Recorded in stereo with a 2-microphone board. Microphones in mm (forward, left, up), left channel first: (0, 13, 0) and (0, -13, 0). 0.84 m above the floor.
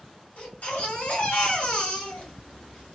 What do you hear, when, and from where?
0.4 s a baby crying: 75° left (ahead or behind), 1.3 m